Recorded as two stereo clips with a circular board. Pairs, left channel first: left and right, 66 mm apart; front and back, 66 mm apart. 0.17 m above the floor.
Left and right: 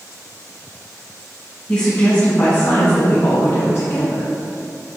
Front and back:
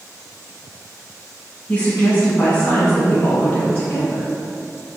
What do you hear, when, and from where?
1.7 s a woman speaking: 25° left, 1.2 m; by 4.3 s 65° left, 2.0 m